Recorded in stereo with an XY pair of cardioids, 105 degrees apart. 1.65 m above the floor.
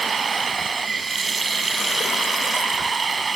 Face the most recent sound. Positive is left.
turn(degrees=-30)